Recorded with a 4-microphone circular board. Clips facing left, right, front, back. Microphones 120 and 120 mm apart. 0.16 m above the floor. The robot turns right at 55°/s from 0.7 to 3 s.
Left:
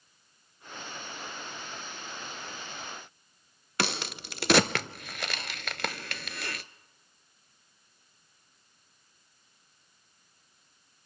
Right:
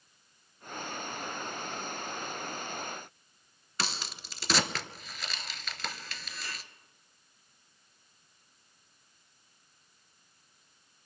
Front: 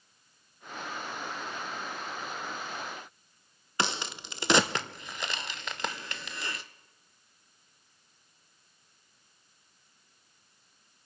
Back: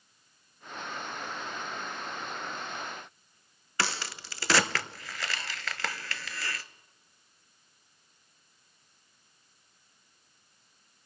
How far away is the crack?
About 0.6 m.